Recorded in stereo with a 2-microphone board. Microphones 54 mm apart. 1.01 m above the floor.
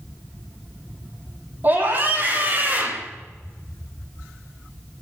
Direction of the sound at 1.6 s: 35° right (ahead or behind).